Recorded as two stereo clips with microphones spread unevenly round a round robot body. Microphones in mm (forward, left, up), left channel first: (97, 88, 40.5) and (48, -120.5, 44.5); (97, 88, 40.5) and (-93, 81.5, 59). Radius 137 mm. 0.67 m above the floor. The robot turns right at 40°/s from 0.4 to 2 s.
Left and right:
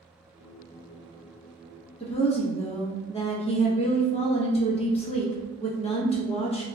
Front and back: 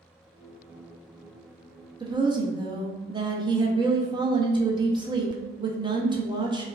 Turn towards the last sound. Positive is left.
turn(degrees=120)